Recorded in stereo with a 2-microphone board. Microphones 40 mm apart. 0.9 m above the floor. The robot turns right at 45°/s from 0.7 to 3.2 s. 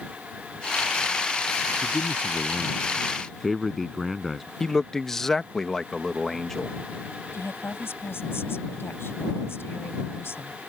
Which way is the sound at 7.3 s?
70° left (ahead or behind).